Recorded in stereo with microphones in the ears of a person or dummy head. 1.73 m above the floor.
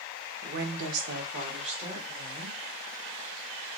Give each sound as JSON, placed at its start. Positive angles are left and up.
{"t": 0.4, "sound": "a woman speaking", "side_deg": -50, "distance_m": 0.6}